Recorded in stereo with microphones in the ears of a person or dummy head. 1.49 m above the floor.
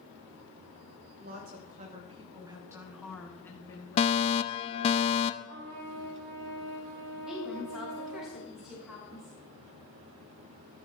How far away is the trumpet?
About 3 m.